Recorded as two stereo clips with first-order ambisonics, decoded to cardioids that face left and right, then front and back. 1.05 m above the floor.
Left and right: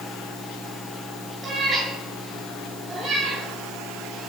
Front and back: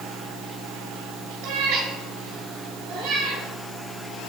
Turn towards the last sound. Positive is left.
turn(degrees=-155)